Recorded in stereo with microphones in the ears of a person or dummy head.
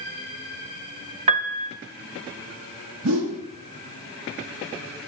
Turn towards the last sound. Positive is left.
turn(degrees=-90)